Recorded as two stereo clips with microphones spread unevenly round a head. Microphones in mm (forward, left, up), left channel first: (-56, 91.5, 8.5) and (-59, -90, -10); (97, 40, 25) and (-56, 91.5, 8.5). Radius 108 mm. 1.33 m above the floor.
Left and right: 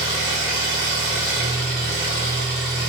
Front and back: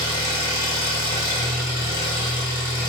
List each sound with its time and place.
0.0 s an engine running: 45° left, 1.8 m